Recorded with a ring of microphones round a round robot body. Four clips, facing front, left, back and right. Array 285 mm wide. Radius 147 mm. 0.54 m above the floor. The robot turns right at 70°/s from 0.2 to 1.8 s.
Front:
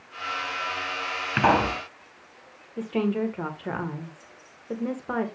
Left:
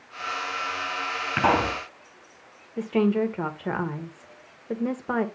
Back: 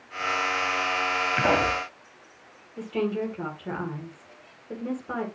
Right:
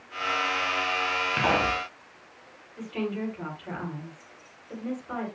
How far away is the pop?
About 4.5 m.